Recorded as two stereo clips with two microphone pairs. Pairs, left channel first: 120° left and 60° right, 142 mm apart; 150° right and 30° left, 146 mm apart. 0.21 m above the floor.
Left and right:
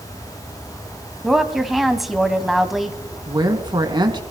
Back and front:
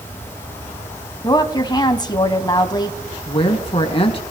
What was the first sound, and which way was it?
A woman speaking, 145° right.